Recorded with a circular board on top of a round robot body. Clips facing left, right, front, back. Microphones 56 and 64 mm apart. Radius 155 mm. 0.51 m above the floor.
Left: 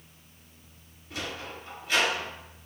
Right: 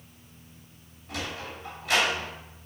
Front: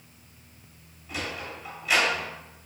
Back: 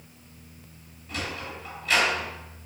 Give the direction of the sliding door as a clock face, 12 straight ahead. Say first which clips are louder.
Right 1 dB, even; 3 o'clock.